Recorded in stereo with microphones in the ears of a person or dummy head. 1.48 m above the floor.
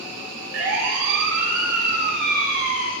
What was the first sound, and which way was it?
A siren, 70° right (ahead or behind).